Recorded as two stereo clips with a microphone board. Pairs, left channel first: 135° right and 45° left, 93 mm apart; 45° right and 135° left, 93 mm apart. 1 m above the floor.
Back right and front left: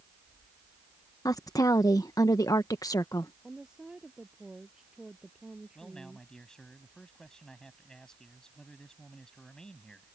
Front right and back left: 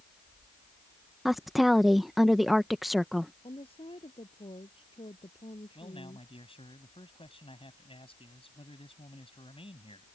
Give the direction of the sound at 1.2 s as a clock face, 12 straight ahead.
5 o'clock.